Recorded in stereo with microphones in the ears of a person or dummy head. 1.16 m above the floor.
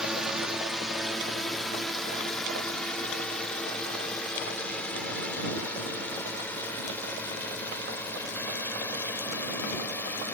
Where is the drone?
Centre (ahead or behind); by 10.3 s 20° left (ahead or behind).